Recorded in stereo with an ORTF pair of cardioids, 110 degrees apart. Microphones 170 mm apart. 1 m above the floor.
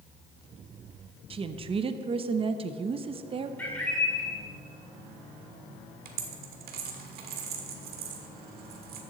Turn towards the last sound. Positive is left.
turn(degrees=-70)